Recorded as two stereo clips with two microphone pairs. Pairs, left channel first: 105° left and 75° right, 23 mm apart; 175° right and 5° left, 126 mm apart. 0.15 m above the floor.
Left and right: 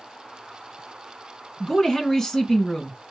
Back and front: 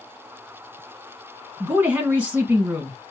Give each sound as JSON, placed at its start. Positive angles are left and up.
{"t": 1.6, "sound": "a woman speaking", "azimuth_deg": 75, "distance_m": 1.2}